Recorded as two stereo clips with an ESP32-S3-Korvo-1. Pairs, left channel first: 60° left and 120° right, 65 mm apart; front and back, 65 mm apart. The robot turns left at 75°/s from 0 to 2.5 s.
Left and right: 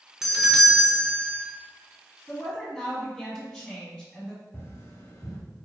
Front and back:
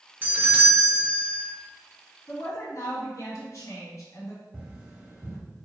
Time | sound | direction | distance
0.2 | a doorbell | 165° left | 0.9 m
2.3 | a woman speaking | straight ahead | 1.8 m
4.5 | tapping | 110° left | 2.0 m